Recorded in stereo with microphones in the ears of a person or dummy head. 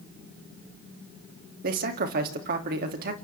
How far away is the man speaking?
About 2.5 m.